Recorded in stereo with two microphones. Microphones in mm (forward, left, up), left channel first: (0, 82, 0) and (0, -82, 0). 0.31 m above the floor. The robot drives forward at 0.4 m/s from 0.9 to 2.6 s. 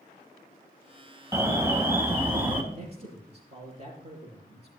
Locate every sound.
1.3 s an alarm: 15° right (ahead or behind), 1.2 m; by 2.6 s 10° right (ahead or behind), 1.6 m
2.7 s a man speaking: 40° right (ahead or behind), 5.5 m